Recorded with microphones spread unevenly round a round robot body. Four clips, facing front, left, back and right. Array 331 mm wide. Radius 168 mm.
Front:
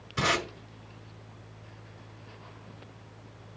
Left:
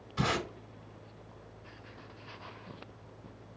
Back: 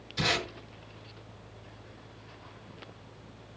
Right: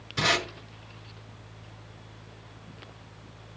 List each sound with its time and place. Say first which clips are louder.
0.2 s tape being pulled: right 4 dB, front 3 dB; 25° right, 5.5 m